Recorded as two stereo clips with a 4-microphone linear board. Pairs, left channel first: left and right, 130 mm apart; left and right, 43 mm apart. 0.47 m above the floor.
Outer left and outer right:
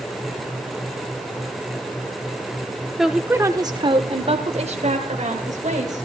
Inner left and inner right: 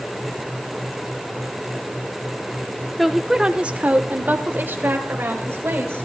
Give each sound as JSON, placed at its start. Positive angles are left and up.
{"t": 3.0, "sound": "a woman speaking", "side_deg": 0, "distance_m": 0.7}